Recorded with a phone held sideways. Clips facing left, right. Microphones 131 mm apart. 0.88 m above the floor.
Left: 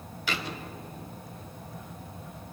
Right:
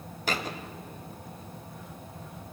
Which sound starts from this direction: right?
A thud, at 0.3 s.